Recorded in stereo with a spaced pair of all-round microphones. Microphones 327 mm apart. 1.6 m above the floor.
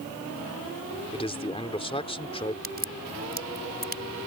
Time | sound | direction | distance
1.1 | a man speaking | 15° left (ahead or behind) | ?
2.6 | a crack | 30° right (ahead or behind) | ?